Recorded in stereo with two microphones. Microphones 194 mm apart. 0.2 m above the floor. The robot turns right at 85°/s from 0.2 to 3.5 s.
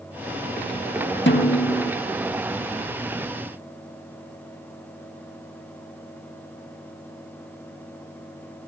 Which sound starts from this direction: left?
A snare drum, at 1.3 s.